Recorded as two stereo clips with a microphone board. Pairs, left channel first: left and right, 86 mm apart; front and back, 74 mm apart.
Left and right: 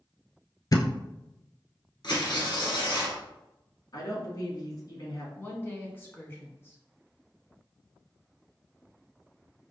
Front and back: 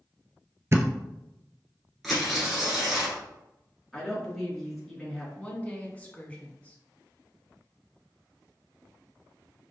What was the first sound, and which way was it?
A thud, 130° left.